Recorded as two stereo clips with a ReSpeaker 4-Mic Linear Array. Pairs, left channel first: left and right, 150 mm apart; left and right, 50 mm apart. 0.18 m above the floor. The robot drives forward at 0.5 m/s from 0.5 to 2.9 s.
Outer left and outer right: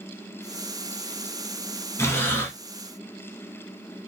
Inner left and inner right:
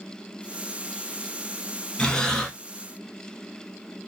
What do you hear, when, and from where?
2.0 s breathing: 20° left (ahead or behind), 0.6 m; by 2.5 s 15° left (ahead or behind), 0.8 m